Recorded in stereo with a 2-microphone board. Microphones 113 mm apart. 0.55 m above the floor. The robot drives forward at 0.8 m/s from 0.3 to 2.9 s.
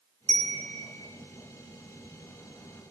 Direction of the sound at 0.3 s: 85° right.